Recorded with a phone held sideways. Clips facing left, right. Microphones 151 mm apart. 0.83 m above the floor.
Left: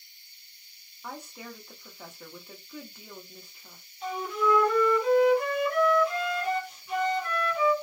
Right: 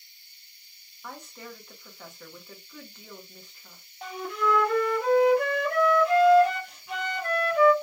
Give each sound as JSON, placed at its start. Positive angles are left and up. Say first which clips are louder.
{"t": 1.0, "sound": "a woman speaking", "louder": "left 1 dB", "side_deg": 10, "distance_m": 1.0}
{"t": 4.0, "sound": "a flute", "louder": "left 1 dB", "side_deg": -65, "distance_m": 1.1}